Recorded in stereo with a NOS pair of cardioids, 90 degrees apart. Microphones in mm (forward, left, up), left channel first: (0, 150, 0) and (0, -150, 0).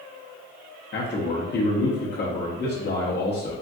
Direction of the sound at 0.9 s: 35° left.